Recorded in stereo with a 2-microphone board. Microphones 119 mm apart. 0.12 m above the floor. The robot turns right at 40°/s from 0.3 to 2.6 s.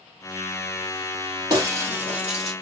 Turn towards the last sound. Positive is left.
turn(degrees=5)